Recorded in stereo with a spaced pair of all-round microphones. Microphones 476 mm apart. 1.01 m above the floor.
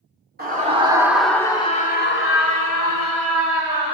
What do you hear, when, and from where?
0.4 s a scream: 20° right (ahead or behind), 2.5 m; by 3.9 s 55° left (ahead or behind), 3.5 m